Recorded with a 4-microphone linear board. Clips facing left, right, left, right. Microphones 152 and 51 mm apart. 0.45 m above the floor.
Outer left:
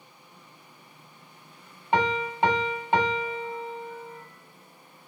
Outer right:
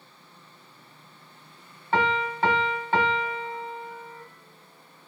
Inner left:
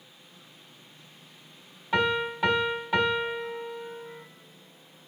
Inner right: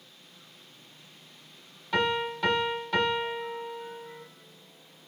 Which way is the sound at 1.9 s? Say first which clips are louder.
Even, inner left 2 dB; 20° left (ahead or behind).